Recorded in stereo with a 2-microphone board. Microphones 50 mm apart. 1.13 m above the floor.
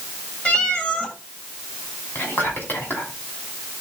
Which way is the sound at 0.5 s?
25° left (ahead or behind).